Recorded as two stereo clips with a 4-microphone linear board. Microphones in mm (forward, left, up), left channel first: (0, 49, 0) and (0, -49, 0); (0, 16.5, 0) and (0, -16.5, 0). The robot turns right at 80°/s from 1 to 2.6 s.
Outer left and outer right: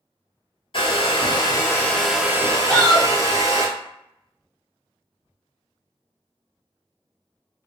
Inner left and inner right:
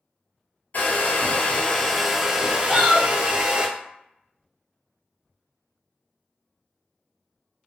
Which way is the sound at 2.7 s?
10° left (ahead or behind).